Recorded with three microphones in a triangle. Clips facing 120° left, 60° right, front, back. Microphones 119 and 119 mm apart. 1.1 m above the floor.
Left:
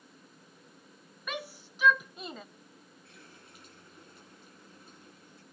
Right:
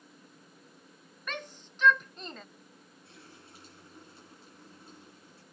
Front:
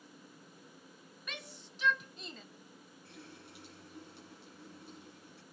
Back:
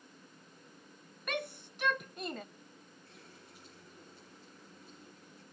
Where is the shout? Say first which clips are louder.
Left 2 dB, back 11 dB; 160° right, 0.5 m.